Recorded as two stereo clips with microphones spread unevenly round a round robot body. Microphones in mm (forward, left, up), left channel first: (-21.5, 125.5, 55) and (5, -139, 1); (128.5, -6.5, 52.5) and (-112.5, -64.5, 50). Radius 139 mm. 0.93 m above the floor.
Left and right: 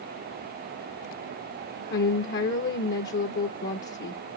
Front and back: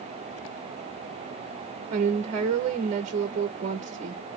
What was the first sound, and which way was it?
A woman speaking, 145° left.